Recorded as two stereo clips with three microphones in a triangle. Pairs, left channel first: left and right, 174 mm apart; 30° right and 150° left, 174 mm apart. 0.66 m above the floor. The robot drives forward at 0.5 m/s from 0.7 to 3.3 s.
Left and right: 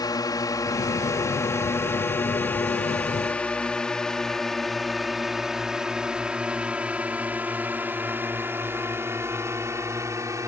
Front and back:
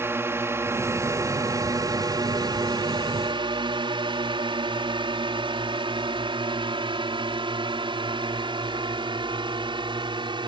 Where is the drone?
100° left; by 10.5 s 155° right.